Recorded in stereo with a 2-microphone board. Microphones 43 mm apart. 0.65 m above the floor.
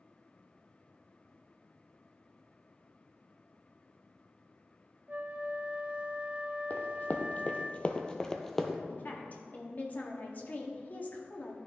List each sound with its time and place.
5.1 s a flute: 35° right (ahead or behind), 0.6 m
6.7 s running footsteps: 40° left (ahead or behind), 1.0 m; by 8.8 s centre (ahead or behind), 0.8 m
8.9 s a woman speaking: 40° left (ahead or behind), 1.0 m